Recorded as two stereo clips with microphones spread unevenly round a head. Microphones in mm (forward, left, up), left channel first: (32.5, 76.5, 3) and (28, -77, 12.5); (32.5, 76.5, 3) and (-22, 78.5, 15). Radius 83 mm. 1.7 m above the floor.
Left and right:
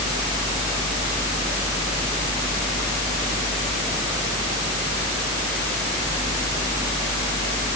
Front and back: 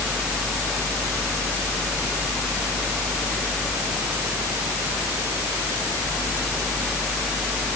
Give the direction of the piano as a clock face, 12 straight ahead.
No piano in this recording.